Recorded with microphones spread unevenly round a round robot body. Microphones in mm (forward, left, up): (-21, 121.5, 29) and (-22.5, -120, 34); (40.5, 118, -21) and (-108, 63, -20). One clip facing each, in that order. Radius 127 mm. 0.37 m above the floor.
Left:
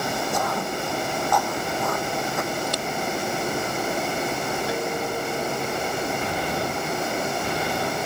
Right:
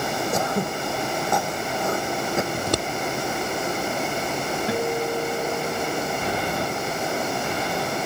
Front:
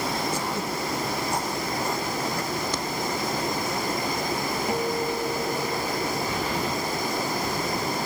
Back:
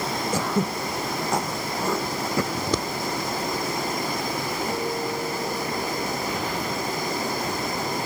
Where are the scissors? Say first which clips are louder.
Right 3 dB, back 3 dB; 130° right.